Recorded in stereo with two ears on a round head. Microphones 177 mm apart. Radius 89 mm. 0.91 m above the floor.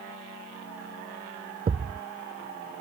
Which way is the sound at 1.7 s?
30° right (ahead or behind).